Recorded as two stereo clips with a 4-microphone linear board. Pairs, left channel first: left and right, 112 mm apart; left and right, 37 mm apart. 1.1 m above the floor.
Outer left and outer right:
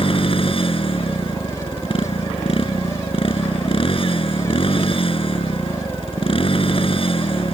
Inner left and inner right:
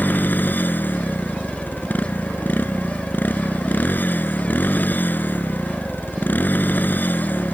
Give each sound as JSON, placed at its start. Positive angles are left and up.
{"t": 0.0, "sound": "a motorcycle", "side_deg": 55}